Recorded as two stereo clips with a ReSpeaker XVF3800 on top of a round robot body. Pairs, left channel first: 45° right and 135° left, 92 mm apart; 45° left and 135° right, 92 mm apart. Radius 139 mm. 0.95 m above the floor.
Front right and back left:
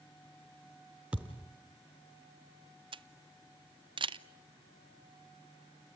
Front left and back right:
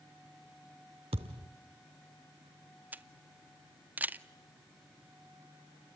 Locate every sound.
1.1 s a thud: 150° right, 0.7 m
2.9 s a camera shutter: 155° left, 0.9 m